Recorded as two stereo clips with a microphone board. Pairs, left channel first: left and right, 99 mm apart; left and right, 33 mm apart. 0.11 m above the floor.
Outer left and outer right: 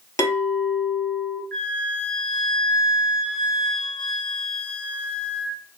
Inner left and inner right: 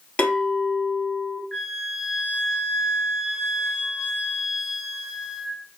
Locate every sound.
0.2 s a clink: 35° left (ahead or behind), 1.2 m
1.5 s a flute: 15° left (ahead or behind), 1.6 m